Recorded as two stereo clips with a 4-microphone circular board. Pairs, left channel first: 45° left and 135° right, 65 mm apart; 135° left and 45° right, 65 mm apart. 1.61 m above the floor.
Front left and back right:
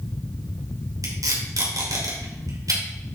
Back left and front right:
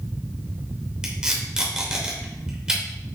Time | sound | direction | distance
1.0 | tape being pulled | 125° right | 3 m